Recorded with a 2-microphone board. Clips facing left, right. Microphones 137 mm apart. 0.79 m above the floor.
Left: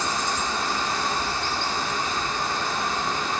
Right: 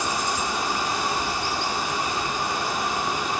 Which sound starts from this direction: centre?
Running water, at 0.0 s.